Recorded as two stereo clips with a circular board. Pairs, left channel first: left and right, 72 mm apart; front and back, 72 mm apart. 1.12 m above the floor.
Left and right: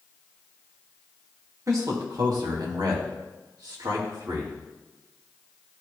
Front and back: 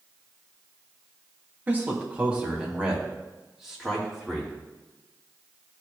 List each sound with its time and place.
1.7 s a man speaking: 120° right, 1.3 m; by 4.5 s 90° right, 2.5 m